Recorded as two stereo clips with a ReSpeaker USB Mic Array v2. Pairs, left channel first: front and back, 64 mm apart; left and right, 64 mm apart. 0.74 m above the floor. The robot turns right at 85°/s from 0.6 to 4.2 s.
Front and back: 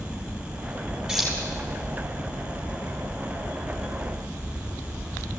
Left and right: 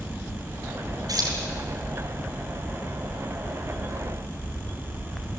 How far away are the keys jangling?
About 7 m.